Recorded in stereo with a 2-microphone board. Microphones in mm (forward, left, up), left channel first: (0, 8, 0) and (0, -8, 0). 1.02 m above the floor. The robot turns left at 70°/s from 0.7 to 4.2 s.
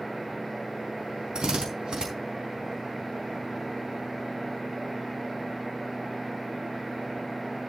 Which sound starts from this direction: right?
A drill, at 1.4 s.